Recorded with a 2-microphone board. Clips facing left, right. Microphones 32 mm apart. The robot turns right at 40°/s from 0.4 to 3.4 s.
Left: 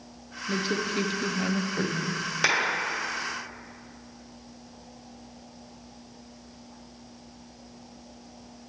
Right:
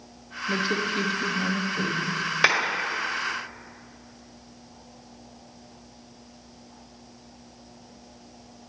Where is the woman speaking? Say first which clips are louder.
Right 3 dB; 15° right, 0.6 m; by 2.2 s 55° left, 0.6 m.